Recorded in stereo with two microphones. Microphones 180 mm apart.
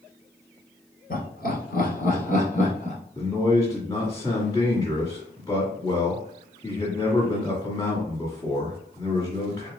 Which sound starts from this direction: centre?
A man speaking, at 3.1 s.